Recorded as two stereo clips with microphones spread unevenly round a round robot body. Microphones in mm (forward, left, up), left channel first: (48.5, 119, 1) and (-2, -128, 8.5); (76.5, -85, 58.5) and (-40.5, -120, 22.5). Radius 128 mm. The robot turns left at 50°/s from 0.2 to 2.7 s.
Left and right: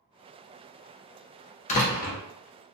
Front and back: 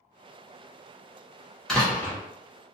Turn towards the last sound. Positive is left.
turn(degrees=70)